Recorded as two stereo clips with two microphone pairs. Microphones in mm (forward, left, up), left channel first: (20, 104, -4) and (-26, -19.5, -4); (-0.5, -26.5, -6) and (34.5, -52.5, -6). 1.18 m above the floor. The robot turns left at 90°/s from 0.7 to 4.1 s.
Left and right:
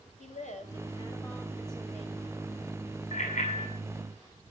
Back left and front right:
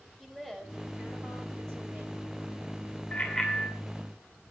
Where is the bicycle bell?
105° left, 7 m; by 3.7 s 50° left, 7 m.